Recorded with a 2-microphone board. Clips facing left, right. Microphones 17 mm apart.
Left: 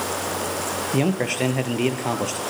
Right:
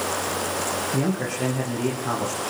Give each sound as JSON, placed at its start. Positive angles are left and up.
{"t": 0.9, "sound": "a man speaking", "side_deg": 50, "distance_m": 4.0}